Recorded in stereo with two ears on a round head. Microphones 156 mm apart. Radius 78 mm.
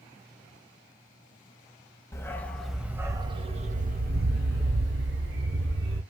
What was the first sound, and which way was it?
A dog barking, 20° left (ahead or behind).